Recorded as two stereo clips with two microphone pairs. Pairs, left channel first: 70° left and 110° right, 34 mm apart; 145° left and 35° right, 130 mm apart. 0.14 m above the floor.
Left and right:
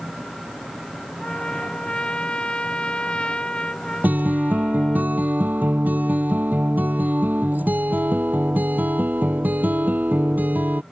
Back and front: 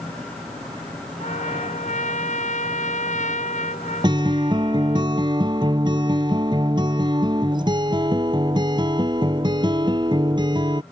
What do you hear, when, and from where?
1.2 s a trumpet: 130° left
4.0 s a guitar: 85° right